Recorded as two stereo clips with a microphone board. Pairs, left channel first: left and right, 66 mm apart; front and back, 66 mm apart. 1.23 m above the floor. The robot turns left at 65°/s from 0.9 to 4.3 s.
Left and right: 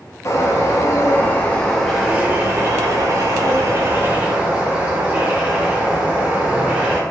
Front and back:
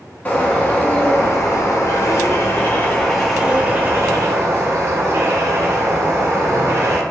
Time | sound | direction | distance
0.2 | a bird | 60° left | 0.8 m